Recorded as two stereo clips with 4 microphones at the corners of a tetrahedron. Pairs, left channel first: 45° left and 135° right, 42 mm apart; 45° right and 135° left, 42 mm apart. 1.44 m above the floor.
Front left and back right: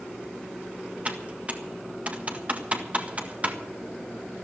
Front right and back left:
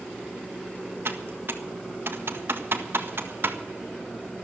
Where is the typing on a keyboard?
165° left, 1.6 m.